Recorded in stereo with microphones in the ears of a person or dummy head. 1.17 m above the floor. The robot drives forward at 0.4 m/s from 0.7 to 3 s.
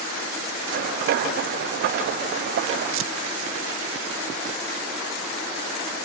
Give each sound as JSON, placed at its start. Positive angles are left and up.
{"t": 2.9, "sound": "tearing paper", "side_deg": -60, "distance_m": 0.9}